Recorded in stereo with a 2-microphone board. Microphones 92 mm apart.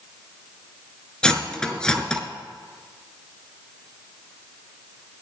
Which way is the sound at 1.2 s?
10° left (ahead or behind).